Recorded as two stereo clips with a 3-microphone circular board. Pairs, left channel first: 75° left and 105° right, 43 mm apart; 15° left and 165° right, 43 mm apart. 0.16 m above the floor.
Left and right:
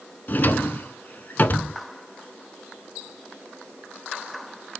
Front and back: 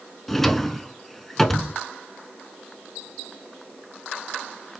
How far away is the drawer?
About 0.6 m.